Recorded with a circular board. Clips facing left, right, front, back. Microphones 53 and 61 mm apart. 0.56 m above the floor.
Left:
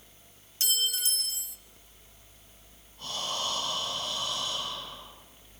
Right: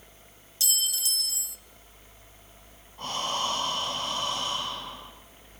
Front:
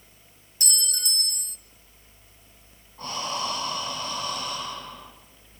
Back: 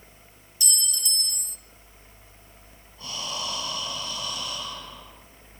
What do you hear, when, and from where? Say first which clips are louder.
0.6 s a clink: left 2 dB, front 1 dB; 40° left, 0.7 m
3.0 s breathing: right 5 dB, front 4 dB; 50° right, 4.5 m